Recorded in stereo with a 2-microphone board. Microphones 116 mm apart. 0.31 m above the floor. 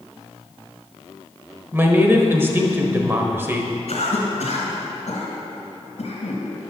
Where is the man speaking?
20° right (ahead or behind), 1.0 m.